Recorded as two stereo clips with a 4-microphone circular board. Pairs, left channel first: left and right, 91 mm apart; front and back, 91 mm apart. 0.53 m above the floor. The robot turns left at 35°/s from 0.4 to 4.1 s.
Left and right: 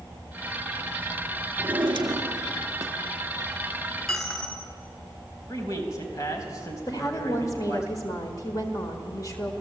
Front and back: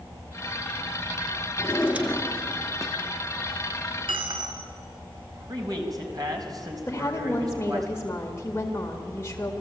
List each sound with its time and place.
1.6 s a drawer: 90° right, 1.7 m; by 3.0 s 140° right, 1.7 m
4.1 s a dropped coin: straight behind, 2 m
5.5 s a man speaking: 140° left, 4 m
6.9 s a woman speaking: 55° left, 1.8 m